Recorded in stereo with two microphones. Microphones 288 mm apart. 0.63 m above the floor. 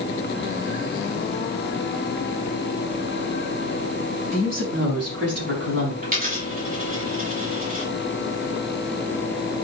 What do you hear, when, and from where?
4.3 s a woman speaking: 45° right (ahead or behind), 4.5 m; by 5.9 s 40° right (ahead or behind), 5 m
6.0 s a dropped coin: 25° right (ahead or behind), 6 m